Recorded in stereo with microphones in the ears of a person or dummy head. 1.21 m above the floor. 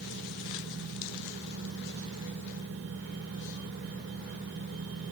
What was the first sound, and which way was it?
Only background noise.